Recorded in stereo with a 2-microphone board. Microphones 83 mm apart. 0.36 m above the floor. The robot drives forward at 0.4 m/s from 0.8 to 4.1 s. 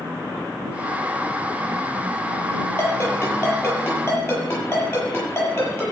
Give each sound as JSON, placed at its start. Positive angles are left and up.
{"t": 2.8, "sound": "a ringtone", "side_deg": 25, "distance_m": 6.5}